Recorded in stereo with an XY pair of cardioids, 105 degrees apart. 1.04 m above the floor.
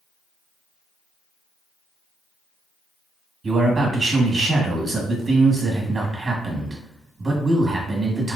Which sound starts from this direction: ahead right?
A man speaking, at 3.4 s.